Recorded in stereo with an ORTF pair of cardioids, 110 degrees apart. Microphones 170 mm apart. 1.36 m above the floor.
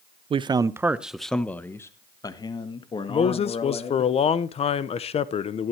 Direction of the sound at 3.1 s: 35° left.